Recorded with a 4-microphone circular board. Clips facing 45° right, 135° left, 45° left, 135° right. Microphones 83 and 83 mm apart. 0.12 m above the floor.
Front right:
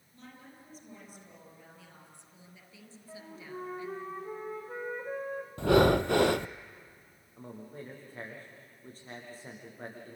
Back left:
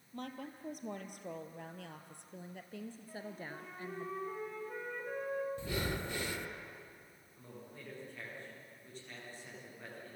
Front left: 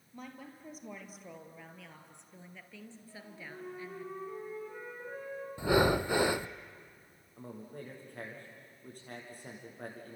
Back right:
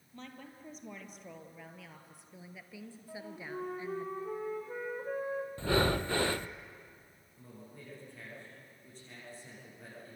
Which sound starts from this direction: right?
A flute, at 3.1 s.